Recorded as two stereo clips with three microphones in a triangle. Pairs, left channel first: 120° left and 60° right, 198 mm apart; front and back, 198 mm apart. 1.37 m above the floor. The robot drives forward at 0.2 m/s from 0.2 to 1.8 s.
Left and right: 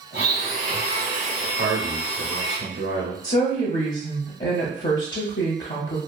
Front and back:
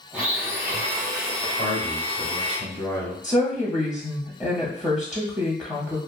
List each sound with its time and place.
0.1 s a blender: 100° right, 1.1 m; by 2.6 s 115° right, 1.2 m
1.6 s a man speaking: 70° right, 1.1 m; by 3.1 s 75° right, 1.1 m
3.2 s a woman speaking: 95° left, 0.5 m